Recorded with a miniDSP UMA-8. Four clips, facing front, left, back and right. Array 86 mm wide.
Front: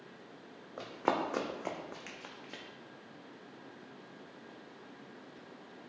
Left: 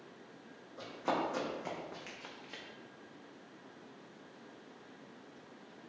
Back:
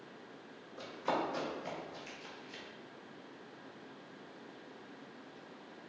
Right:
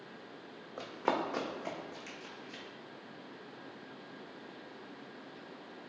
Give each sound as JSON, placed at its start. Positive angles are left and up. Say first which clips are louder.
{"t": 0.8, "sound": "running footsteps", "louder": "right 2 dB, front 3 dB", "azimuth_deg": -40, "distance_m": 0.8}